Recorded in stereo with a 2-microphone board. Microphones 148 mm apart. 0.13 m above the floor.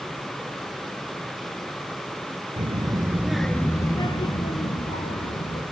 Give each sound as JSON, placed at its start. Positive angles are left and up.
{"t": 2.6, "sound": "a child speaking", "side_deg": -45, "distance_m": 1.5}